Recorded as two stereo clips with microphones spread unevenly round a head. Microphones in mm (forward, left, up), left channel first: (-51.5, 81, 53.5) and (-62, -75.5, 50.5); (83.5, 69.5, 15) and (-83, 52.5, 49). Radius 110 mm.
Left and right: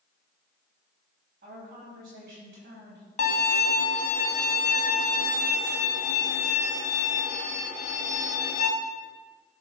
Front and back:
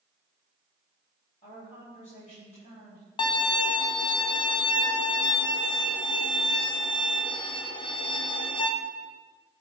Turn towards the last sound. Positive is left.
turn(degrees=55)